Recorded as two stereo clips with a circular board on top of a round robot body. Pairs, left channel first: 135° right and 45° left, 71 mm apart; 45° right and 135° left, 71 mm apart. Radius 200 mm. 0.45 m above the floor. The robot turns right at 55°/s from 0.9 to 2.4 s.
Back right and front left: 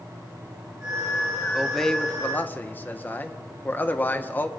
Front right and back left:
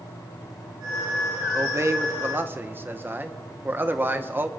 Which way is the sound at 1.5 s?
130° left.